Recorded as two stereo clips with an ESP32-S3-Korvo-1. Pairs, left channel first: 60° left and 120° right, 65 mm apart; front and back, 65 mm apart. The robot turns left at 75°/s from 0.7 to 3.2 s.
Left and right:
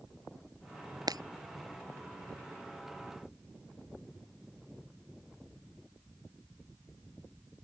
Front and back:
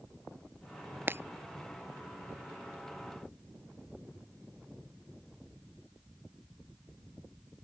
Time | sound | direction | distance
1.1 | breaking glass | 120° right | ?